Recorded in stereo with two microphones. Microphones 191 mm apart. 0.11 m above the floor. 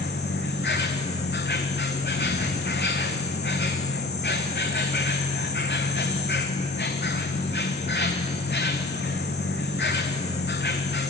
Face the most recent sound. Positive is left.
turn(degrees=60)  # may be behind; listen again after turning